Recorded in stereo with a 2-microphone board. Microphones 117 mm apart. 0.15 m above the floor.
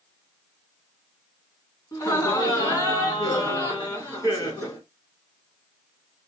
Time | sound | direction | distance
1.9 | laughter | 30° left (ahead or behind) | 1.8 m